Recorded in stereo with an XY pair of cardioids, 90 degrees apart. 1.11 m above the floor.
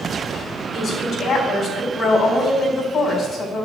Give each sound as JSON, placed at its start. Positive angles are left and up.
{"t": 0.7, "sound": "a woman speaking", "azimuth_deg": 55, "distance_m": 6.5}